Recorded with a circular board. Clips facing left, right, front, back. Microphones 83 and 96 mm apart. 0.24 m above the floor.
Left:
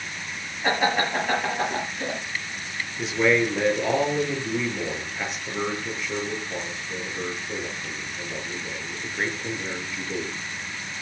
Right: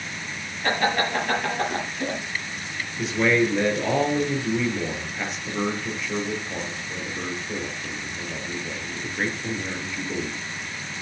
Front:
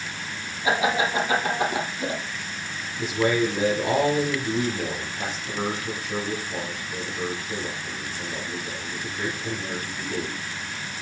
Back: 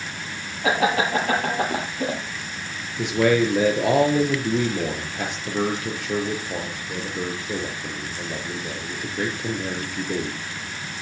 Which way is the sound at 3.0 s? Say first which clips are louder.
Even, back 4 dB; straight behind.